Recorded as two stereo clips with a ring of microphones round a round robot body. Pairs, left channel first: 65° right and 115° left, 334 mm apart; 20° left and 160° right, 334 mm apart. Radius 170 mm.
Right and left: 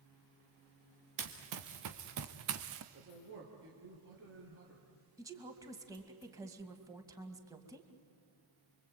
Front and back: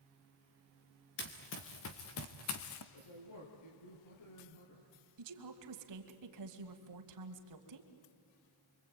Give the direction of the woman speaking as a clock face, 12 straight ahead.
6 o'clock.